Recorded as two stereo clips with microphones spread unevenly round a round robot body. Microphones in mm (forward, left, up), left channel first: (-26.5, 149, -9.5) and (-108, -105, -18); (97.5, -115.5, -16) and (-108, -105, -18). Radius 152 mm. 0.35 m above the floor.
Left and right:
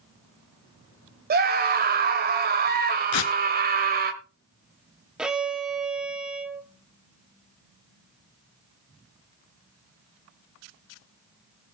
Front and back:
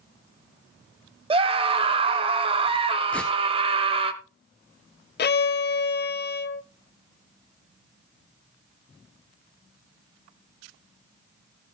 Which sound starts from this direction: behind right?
A scream, at 1.3 s.